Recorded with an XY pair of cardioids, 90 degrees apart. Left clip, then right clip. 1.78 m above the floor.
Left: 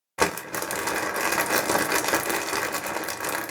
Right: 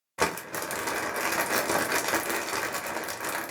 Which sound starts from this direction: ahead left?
Crumpling, at 0.2 s.